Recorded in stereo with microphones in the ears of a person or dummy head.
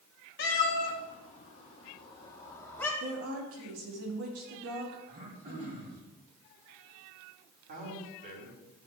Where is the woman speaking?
80° right, 2.5 m.